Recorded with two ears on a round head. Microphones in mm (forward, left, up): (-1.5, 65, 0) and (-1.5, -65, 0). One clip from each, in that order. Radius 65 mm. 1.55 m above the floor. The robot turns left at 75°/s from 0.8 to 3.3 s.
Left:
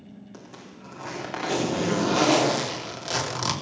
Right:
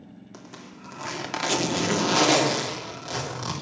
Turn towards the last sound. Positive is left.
turn(degrees=140)